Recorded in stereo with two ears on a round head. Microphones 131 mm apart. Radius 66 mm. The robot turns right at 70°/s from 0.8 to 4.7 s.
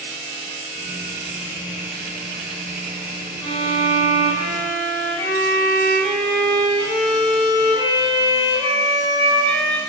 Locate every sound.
3.4 s a violin: 25° left, 1.5 m; by 9.8 s 115° left, 1.5 m